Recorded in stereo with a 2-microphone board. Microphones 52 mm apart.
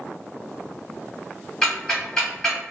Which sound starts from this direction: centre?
Ticking, at 1.6 s.